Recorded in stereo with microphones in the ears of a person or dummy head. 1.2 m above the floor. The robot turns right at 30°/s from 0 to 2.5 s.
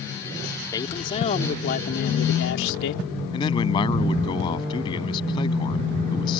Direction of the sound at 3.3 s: 30° left (ahead or behind).